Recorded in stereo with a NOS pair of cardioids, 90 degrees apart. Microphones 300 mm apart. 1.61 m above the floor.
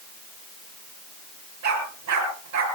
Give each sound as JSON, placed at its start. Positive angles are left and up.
{"t": 1.6, "sound": "a dog barking", "azimuth_deg": -65, "distance_m": 8.0}